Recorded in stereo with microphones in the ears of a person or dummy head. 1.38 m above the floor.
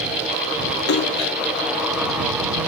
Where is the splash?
65° left (ahead or behind).